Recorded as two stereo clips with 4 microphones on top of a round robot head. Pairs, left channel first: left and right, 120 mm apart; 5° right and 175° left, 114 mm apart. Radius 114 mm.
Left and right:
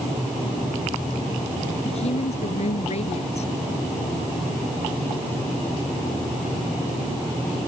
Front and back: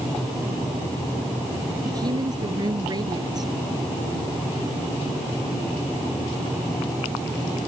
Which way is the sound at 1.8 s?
120° left.